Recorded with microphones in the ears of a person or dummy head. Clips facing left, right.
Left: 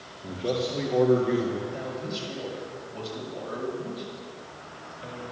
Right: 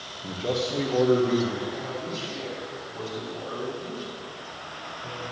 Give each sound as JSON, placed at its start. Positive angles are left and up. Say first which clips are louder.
{"t": 0.2, "sound": "a man speaking", "louder": "even", "side_deg": -5, "distance_m": 2.0}
{"t": 1.7, "sound": "a man speaking", "louder": "even", "side_deg": 50, "distance_m": 6.5}